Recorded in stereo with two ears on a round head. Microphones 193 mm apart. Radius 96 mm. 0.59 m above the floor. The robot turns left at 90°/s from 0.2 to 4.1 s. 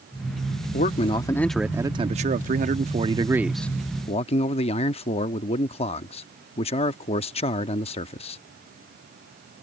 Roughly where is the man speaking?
Left.